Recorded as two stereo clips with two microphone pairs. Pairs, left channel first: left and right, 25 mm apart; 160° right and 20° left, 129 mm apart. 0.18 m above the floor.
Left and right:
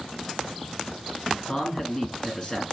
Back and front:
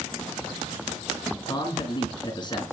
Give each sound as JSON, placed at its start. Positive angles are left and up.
{"t": 1.5, "sound": "a man speaking", "azimuth_deg": 155, "distance_m": 2.5}